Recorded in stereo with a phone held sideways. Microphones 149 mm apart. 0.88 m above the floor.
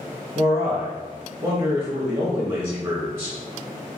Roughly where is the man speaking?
Right.